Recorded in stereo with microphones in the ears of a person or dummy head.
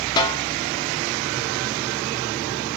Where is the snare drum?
20° left (ahead or behind), 1.6 m.